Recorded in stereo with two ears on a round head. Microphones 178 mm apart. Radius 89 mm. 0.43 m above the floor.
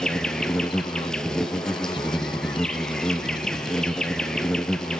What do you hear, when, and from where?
0.0 s an insect: 5° left (ahead or behind), 0.9 m